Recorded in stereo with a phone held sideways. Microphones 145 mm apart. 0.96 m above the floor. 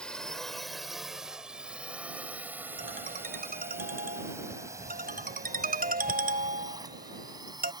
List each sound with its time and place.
0.0 s a drone: 5° left (ahead or behind); by 7.8 s 30° right (ahead or behind)
2.8 s a ringtone: 90° right